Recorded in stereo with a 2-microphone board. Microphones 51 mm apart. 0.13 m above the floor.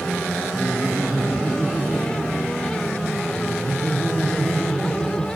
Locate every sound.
0.6 s laughter: 5° right (ahead or behind), 1.1 m